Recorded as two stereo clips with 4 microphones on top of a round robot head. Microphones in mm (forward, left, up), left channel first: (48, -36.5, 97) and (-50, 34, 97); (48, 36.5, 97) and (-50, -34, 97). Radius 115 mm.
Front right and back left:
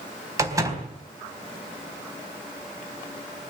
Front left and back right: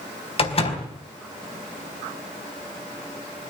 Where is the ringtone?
No ringtone in this recording.